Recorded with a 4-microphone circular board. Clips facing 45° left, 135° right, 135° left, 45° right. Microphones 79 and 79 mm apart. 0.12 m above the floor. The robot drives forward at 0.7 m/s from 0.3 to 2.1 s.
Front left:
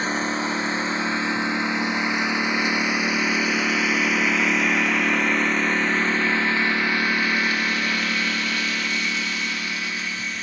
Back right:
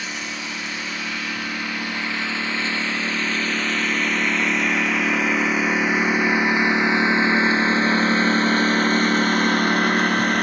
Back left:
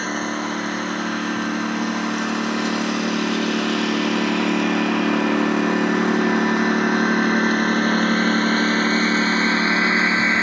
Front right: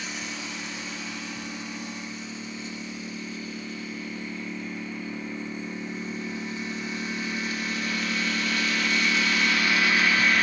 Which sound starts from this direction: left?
A lawn mower, at 0.0 s.